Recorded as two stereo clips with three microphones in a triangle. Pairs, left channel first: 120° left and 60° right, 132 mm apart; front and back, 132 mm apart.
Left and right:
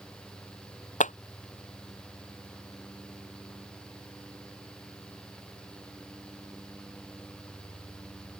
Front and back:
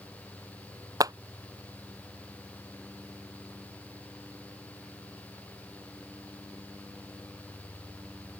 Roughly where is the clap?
Behind left.